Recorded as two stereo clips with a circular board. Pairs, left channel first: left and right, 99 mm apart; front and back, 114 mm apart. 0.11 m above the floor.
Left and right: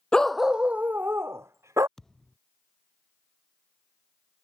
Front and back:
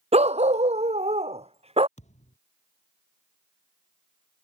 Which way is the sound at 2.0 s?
5° left.